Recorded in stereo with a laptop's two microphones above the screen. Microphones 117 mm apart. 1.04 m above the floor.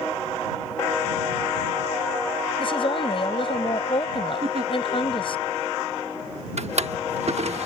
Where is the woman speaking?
45° left (ahead or behind).